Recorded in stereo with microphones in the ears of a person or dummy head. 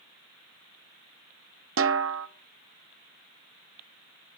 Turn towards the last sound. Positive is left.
turn(degrees=-70)  # may be behind; listen again after turning